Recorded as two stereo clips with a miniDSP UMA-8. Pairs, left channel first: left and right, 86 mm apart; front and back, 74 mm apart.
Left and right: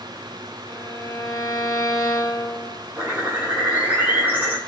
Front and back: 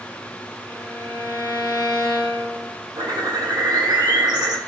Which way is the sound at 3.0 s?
155° right.